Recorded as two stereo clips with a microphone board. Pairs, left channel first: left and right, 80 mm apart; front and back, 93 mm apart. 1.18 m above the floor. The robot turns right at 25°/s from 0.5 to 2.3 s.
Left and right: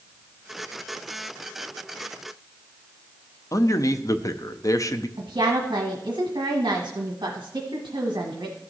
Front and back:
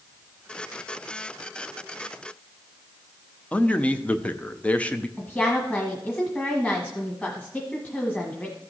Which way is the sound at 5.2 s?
70° right.